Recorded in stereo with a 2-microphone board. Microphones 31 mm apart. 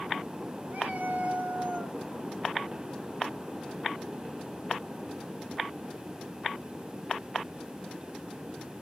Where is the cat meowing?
70° right (ahead or behind), 2.0 m; by 2.0 s 40° right (ahead or behind), 1.0 m.